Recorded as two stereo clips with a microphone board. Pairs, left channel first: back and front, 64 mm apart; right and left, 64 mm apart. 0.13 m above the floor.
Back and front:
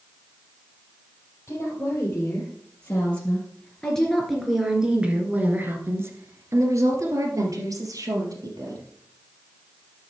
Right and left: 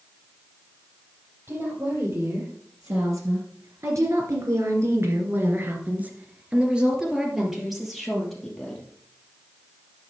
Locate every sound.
1.5 s a woman speaking: 130° left, 4 m; by 8.8 s 5° right, 4 m